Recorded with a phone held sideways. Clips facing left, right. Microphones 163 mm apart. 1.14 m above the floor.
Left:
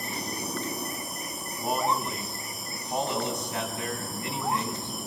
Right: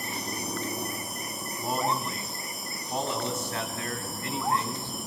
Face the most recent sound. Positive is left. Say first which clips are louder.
# left 2 dB
turn(degrees=15)  # may be behind; listen again after turning